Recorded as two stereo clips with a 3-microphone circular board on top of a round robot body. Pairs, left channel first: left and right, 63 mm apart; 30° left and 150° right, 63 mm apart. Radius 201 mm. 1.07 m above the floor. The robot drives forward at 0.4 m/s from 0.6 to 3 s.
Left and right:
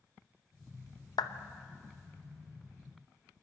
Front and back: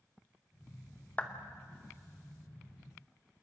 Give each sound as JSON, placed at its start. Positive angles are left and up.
{"t": 1.2, "sound": "a clap", "azimuth_deg": 100, "distance_m": 0.9}